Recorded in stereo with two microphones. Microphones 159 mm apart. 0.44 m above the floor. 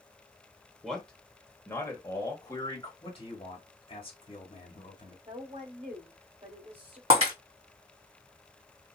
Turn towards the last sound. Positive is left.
turn(degrees=-40)  # may be behind; listen again after turning